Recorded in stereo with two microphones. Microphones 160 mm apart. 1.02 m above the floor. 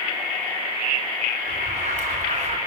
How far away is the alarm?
About 6.5 m.